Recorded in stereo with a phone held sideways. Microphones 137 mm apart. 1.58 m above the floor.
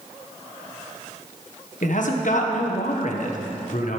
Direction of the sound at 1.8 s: 70° left (ahead or behind).